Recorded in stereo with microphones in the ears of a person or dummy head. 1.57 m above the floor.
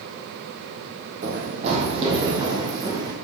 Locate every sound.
1.2 s running footsteps: 45° right (ahead or behind), 3.5 m; by 3.1 s 20° right (ahead or behind), 4.5 m